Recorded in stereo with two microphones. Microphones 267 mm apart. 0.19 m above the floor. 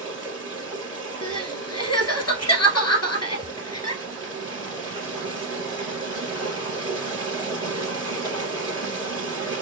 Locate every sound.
0.0 s running water: 55° right (ahead or behind), 3 m
1.2 s crying: 75° left (ahead or behind), 1.2 m